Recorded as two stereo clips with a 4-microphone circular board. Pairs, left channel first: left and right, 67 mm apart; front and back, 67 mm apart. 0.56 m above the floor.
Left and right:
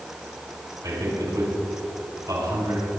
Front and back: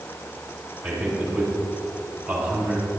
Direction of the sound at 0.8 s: 120° right.